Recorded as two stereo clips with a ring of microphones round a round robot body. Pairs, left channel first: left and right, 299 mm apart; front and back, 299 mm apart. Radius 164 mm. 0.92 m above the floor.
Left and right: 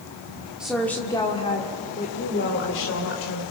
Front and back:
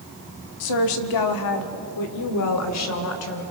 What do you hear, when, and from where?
0.6 s a woman speaking: 5° right, 1.8 m; by 3.4 s 40° left, 3 m